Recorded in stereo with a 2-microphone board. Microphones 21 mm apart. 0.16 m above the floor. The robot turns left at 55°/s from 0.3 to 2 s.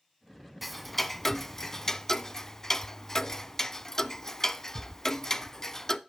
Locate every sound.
0.6 s ticking: centre (ahead or behind), 0.6 m; by 6.0 s 20° left (ahead or behind), 0.6 m